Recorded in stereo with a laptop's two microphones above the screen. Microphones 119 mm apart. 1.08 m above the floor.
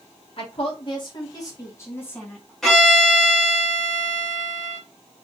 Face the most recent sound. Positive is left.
turn(degrees=5)  # may be behind; listen again after turning